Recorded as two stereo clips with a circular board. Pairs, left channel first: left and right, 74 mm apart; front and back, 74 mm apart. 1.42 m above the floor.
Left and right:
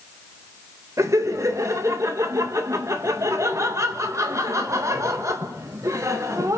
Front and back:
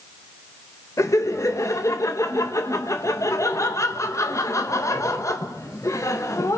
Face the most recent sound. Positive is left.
turn(degrees=-45)